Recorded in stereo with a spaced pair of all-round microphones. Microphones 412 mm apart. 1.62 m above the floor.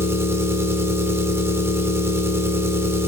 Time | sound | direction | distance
0.0 | an engine running | 5° right (ahead or behind) | 1.3 m